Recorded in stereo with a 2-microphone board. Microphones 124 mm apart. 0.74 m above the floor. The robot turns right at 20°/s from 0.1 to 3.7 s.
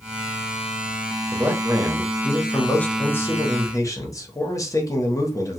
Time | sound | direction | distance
1.3 | a man speaking | 20° right | 0.8 m